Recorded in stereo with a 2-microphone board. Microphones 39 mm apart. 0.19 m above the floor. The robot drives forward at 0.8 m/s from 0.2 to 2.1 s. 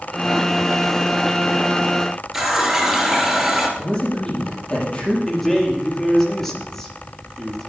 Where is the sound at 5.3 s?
10° left (ahead or behind), 3 m.